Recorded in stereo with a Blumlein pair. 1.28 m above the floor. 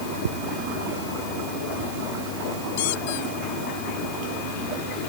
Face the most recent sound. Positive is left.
turn(degrees=50)